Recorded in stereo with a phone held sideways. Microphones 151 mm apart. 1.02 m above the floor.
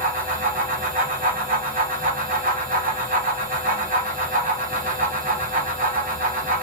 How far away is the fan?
About 1.0 m.